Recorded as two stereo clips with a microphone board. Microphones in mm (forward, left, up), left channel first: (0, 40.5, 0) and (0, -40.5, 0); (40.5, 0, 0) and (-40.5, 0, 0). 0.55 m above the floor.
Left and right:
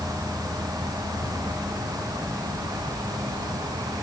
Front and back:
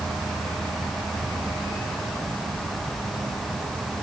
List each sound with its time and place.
0.0 s an insect: 125° left